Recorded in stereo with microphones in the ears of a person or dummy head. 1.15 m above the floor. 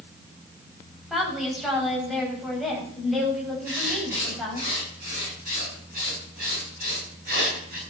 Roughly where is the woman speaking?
Centre.